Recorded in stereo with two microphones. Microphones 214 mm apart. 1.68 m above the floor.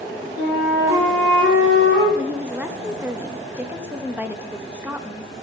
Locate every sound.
0.4 s a flute: 60° right (ahead or behind), 2.5 m
2.1 s a woman speaking: 10° right (ahead or behind), 0.6 m